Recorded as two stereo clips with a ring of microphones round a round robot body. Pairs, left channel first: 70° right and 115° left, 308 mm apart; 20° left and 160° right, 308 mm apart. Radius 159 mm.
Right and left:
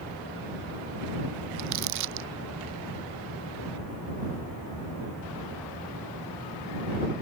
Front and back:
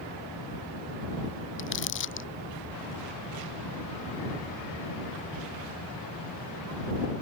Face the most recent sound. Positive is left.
turn(degrees=75)